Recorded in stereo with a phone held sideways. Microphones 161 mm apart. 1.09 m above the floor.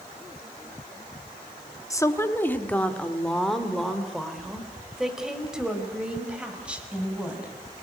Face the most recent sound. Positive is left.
turn(degrees=-10)  # may be behind; listen again after turning